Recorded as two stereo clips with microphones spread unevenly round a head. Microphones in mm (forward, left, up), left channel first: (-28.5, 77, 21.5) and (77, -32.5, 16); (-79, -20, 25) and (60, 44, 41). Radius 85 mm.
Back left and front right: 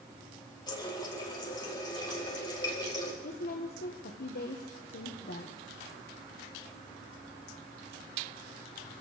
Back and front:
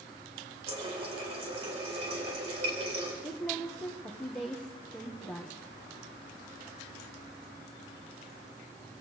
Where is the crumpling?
No crumpling in this recording.